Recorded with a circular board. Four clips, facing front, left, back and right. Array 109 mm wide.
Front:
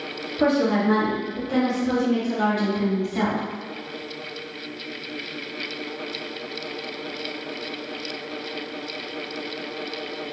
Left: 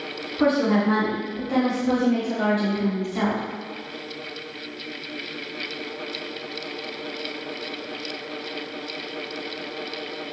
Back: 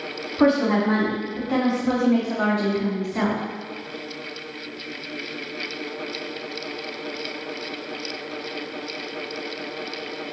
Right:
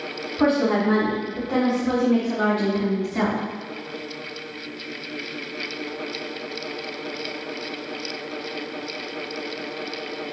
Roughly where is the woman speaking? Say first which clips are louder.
Even, back 2 dB; behind.